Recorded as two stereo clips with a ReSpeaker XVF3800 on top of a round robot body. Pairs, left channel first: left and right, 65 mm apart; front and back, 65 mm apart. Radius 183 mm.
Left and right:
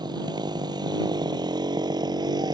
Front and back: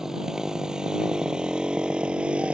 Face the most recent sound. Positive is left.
turn(degrees=-105)